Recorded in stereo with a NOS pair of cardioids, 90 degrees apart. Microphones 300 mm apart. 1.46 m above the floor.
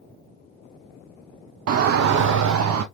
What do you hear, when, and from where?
1.7 s a shout: 55° right, 0.5 m; by 2.8 s 70° right, 1.3 m